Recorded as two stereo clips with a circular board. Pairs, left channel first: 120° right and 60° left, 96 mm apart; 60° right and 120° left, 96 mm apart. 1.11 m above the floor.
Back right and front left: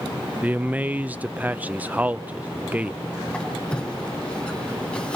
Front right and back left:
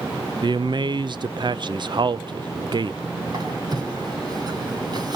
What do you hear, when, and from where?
0.4 s a man speaking: 130° left, 0.6 m
3.3 s a squeak: 160° left, 3.5 m